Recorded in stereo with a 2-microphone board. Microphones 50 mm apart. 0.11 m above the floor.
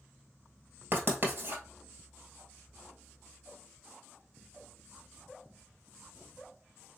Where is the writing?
45° right (ahead or behind), 1.5 m.